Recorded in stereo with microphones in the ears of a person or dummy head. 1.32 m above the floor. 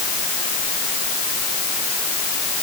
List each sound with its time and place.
Only background noise.